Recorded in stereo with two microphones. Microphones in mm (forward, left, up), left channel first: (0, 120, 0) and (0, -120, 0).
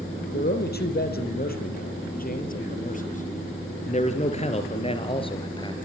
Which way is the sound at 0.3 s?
45° left (ahead or behind).